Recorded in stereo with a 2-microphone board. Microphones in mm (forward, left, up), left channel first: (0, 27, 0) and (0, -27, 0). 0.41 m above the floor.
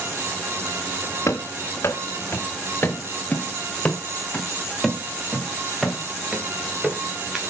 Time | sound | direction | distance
1.3 | running footsteps | 60° left (ahead or behind) | 2 m